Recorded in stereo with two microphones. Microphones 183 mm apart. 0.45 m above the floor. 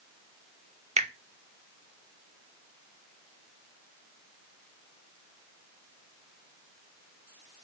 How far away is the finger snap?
About 0.6 m.